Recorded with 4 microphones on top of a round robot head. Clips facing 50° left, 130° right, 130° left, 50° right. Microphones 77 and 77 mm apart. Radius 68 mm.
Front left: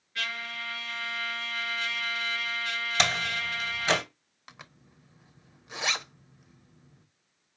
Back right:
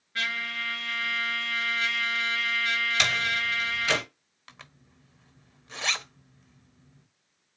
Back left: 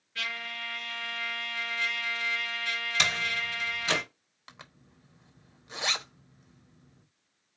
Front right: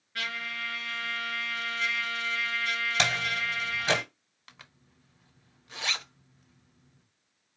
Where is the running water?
I don't hear running water.